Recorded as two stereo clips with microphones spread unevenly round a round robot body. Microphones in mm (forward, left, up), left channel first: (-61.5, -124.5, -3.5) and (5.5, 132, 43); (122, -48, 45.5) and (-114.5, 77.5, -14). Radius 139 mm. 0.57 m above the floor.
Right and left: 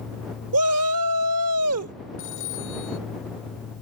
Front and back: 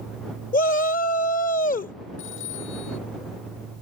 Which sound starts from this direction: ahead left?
A shout, at 0.5 s.